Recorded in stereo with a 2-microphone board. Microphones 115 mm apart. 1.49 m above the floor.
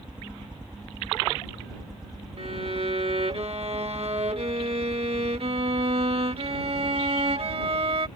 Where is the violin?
55° right (ahead or behind).